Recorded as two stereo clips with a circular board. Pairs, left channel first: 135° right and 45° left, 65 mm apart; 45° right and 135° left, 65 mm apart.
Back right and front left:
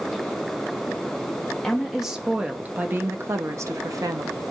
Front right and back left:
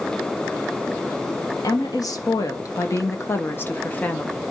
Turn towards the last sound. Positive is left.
turn(degrees=25)